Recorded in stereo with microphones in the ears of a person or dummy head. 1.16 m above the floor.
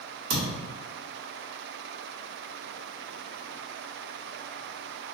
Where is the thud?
55° right (ahead or behind), 1.1 m.